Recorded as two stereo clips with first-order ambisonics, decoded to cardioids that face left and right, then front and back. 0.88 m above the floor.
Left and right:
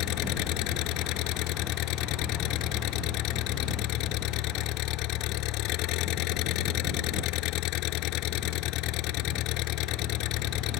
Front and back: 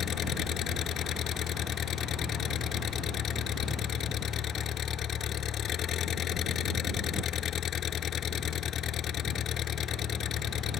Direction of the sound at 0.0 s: 60° left.